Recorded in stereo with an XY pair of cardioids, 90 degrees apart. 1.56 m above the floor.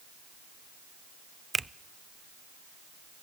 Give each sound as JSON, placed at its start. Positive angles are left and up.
{"t": 1.5, "sound": "a finger snap", "azimuth_deg": -25, "distance_m": 0.6}